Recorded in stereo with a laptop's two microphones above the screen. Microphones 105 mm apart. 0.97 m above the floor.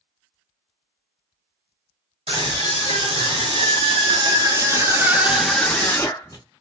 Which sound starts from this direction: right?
A scream, at 2.3 s.